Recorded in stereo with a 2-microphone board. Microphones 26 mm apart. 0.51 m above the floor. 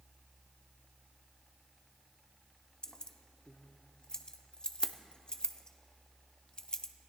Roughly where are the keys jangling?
Left.